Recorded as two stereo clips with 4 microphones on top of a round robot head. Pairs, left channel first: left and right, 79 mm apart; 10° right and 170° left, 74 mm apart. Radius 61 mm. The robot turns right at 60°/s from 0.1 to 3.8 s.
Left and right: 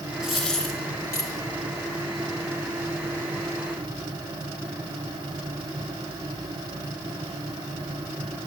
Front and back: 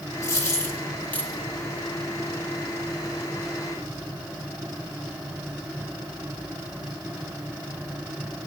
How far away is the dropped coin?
About 1.0 m.